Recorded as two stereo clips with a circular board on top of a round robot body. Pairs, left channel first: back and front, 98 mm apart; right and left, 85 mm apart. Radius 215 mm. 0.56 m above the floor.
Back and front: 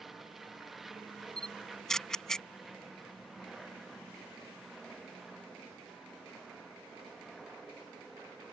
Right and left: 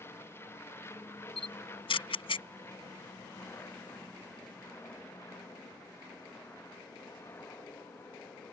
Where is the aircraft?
85° right.